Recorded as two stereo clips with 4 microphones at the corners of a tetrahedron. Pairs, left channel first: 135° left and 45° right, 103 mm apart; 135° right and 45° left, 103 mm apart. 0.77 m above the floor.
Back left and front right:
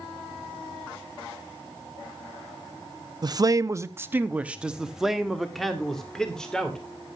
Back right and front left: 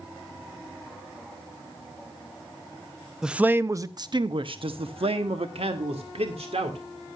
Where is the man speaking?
35° right, 0.7 m; by 6.8 s 50° left, 2 m.